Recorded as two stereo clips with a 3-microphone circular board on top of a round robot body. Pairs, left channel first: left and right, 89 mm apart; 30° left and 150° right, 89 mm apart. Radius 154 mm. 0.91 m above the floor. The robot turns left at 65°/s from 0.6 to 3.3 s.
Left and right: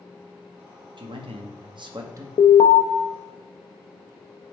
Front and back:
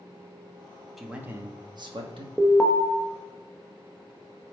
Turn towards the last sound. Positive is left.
turn(degrees=60)